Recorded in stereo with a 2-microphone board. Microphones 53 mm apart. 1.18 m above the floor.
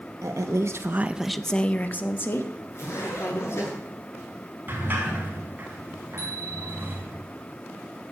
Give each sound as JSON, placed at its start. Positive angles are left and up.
{"t": 0.2, "sound": "a woman speaking", "side_deg": -80, "distance_m": 1.4}
{"t": 2.7, "sound": "a zipper", "side_deg": 55, "distance_m": 9.0}
{"t": 4.7, "sound": "a sliding door", "side_deg": -40, "distance_m": 4.5}
{"t": 6.2, "sound": "a bicycle bell", "side_deg": 45, "distance_m": 9.0}